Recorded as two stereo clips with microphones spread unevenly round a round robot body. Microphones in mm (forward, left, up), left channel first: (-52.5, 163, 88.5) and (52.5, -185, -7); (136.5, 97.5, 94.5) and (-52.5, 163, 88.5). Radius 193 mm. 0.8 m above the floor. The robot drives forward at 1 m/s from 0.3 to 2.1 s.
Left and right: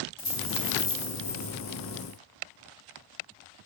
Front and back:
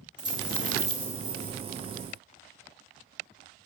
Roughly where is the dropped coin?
Ahead left.